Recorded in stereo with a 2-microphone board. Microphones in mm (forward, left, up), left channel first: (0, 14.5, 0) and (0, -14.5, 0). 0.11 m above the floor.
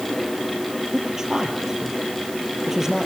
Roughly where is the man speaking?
Centre.